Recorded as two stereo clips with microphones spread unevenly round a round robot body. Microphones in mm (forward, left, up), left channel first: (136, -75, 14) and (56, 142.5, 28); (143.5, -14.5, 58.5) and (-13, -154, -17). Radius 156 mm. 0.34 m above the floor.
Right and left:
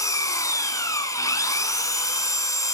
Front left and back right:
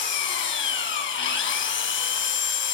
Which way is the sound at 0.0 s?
10° left.